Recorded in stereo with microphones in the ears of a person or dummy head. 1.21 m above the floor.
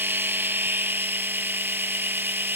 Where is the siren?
No siren in this recording.